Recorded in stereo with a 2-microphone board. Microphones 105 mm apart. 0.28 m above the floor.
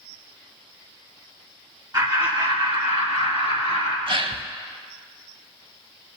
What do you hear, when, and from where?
1.9 s laughter: 40° right (ahead or behind), 2.0 m; by 4.0 s 75° right (ahead or behind), 4 m
4.1 s a gasp: 55° right (ahead or behind), 0.5 m